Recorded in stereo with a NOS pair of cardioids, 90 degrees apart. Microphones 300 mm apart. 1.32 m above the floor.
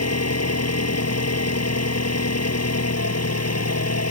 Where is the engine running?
55° left.